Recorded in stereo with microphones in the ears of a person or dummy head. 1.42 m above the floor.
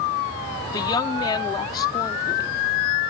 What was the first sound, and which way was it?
A woman speaking, 25° left (ahead or behind).